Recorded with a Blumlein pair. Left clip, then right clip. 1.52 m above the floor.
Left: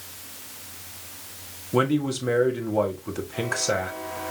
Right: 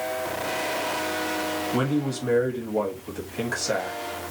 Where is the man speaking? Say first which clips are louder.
Left 3 dB; 15° left, 1.4 m.